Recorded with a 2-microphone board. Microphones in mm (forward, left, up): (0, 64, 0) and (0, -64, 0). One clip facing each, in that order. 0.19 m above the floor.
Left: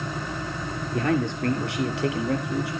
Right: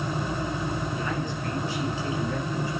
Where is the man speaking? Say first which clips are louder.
Left 6 dB; 65° left (ahead or behind), 3.5 m; by 2.7 s 75° left (ahead or behind), 4.5 m.